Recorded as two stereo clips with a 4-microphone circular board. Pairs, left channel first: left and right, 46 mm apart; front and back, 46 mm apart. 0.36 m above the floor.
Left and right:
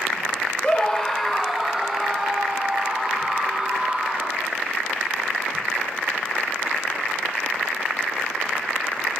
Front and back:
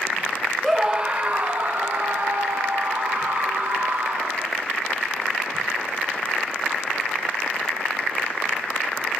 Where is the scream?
105° left, 0.8 m; by 4.5 s 165° right, 3.5 m.